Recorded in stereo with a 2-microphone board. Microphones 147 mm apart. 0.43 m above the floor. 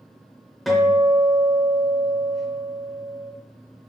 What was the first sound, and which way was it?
A guitar, centre (ahead or behind).